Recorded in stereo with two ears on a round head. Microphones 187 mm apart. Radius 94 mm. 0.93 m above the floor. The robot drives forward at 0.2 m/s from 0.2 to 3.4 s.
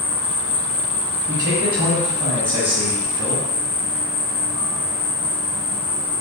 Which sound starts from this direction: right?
A man speaking, at 1.3 s.